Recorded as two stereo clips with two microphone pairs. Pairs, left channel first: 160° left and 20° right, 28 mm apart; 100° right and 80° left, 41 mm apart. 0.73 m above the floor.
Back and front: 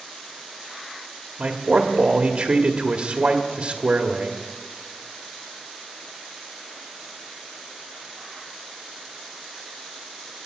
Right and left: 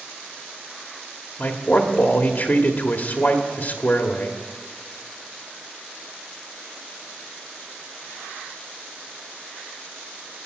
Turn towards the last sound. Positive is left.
turn(degrees=-60)